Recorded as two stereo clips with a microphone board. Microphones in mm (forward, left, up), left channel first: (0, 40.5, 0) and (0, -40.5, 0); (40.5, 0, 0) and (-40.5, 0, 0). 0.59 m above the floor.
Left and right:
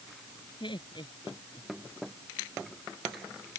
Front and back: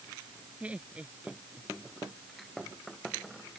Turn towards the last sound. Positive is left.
turn(degrees=105)